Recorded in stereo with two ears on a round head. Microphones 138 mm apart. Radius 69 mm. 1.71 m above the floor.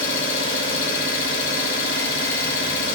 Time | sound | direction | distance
0.0 | an engine running | 75° left (ahead or behind) | 4 m